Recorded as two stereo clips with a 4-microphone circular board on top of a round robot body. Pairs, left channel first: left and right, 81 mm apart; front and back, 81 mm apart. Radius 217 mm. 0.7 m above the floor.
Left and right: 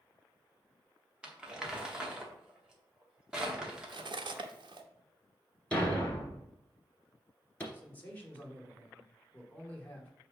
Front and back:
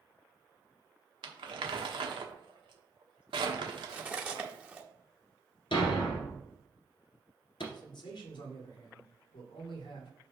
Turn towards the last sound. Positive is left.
turn(degrees=25)